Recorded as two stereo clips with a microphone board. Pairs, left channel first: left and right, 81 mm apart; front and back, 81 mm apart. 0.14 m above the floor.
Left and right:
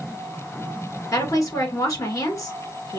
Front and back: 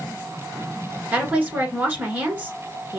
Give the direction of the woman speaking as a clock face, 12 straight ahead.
8 o'clock.